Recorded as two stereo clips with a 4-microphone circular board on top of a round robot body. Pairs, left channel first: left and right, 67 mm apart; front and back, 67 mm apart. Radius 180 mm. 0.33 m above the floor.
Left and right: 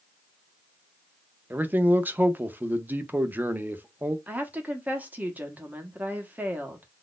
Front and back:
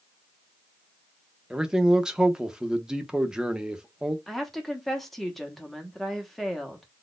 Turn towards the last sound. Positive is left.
turn(degrees=-85)